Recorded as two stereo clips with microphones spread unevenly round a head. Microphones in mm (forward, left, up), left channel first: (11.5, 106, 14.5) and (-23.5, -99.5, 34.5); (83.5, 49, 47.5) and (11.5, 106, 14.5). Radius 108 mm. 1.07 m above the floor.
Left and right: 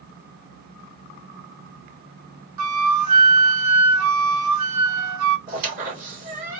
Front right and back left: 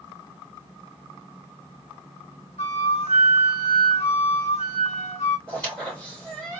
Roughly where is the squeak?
Behind right.